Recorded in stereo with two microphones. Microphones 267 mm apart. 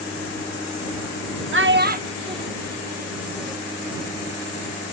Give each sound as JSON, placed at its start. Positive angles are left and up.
{"t": 1.5, "sound": "a child speaking", "side_deg": -50}